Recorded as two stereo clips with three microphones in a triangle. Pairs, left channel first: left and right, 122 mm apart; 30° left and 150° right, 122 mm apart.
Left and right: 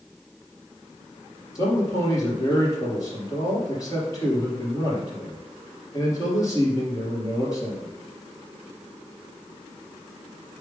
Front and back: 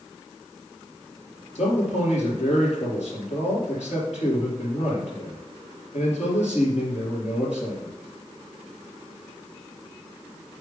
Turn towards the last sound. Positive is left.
turn(degrees=30)